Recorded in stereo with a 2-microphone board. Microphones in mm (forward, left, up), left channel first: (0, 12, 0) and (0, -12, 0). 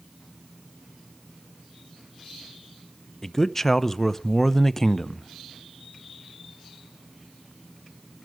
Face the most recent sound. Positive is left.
turn(degrees=15)  # may be behind; listen again after turning